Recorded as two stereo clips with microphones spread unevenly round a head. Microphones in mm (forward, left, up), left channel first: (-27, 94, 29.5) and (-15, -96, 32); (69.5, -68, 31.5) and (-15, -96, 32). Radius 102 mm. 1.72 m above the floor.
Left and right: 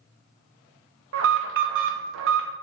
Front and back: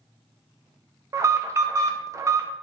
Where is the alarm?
105° right, 1.5 m.